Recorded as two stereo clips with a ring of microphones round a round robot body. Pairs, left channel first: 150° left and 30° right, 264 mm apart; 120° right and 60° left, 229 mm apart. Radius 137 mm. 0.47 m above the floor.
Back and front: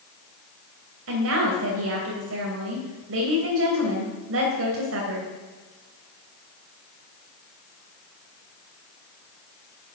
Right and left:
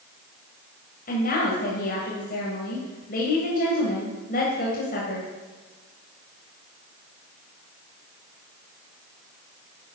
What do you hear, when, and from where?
1.1 s a woman speaking: 65° right, 2 m